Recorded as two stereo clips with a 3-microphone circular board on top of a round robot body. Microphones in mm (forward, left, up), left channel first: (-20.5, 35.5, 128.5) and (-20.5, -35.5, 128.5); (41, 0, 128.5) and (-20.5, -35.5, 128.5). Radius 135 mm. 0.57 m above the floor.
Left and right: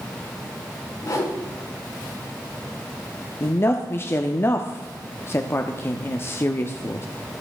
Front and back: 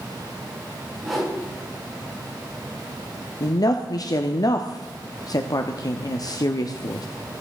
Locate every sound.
1.0 s a whoosh: 115° left, 5.5 m
3.4 s a woman speaking: 40° left, 1.1 m